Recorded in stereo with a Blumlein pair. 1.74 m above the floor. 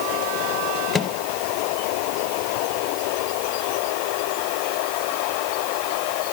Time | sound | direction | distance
0.9 | a microwave | 10° left | 1.0 m